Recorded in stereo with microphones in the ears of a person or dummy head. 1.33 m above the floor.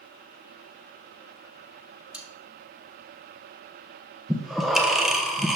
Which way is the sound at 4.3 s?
Centre (ahead or behind).